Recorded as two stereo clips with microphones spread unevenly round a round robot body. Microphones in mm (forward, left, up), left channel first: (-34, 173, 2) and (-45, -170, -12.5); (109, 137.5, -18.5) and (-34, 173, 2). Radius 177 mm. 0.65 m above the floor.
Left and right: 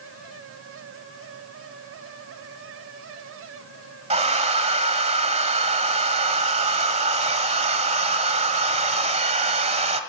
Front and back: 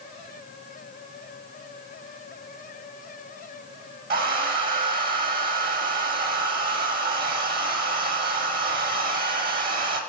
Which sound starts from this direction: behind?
A hair dryer, at 4.1 s.